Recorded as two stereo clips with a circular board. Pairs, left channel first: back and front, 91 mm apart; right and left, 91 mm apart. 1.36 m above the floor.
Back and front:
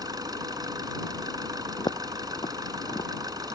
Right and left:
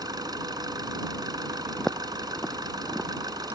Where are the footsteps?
175° right; by 3.6 s 160° left.